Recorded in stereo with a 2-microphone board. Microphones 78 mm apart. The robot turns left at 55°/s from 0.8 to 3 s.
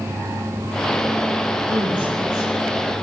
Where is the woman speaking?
85° right, 7 m; by 2.5 s 130° right, 7 m.